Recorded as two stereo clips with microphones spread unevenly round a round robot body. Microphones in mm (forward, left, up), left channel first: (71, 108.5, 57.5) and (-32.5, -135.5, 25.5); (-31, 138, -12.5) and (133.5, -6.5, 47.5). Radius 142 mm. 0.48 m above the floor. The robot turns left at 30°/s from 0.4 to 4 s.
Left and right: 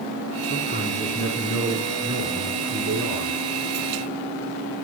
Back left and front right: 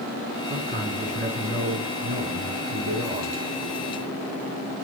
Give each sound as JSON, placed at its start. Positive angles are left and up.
{"t": 0.5, "sound": "a man speaking", "azimuth_deg": 15, "distance_m": 5.0}